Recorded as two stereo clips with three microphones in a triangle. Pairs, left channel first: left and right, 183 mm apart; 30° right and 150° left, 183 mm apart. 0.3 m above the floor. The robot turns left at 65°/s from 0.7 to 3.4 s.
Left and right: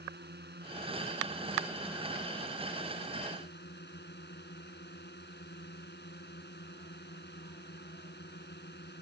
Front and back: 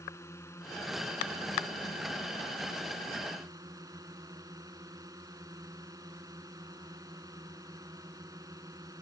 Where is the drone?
105° right; by 9.0 s 80° left.